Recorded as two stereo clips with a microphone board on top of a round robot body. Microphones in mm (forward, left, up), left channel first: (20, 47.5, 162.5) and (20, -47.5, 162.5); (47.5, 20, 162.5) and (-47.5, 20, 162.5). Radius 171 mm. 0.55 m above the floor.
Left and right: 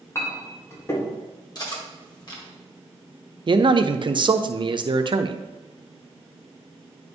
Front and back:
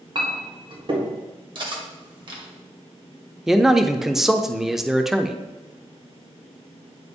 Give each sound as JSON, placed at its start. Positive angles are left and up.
{"t": 0.1, "sound": "a clink", "azimuth_deg": 150, "distance_m": 1.6}
{"t": 1.6, "sound": "cutlery clinking", "azimuth_deg": 140, "distance_m": 1.7}
{"t": 3.5, "sound": "a man speaking", "azimuth_deg": -95, "distance_m": 0.8}